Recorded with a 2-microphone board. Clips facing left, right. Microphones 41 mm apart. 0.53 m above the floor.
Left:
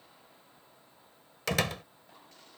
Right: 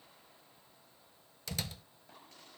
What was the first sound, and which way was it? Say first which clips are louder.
A door slam: left 12 dB; 75° left (ahead or behind).